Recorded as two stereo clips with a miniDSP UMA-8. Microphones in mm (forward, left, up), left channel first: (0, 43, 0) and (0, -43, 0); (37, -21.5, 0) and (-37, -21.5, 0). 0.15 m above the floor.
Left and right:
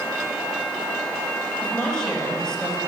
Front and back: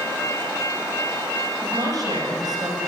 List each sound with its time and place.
1.6 s a woman speaking: 175° left, 4 m